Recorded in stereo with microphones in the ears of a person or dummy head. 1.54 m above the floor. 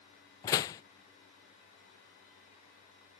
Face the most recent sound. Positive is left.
turn(degrees=20)  # may be behind; listen again after turning